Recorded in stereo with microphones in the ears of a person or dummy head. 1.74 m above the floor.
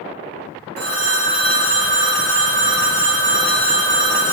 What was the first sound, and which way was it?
A phone ringing, 15° left (ahead or behind).